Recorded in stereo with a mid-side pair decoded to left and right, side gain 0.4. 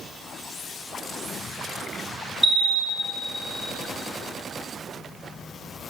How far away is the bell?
About 1.1 m.